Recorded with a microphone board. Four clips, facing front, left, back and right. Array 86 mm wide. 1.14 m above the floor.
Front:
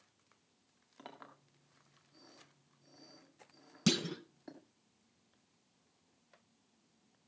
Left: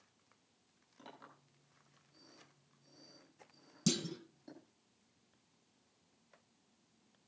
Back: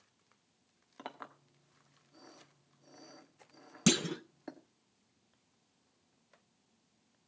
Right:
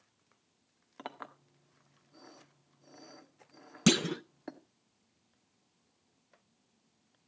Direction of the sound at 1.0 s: 115° right.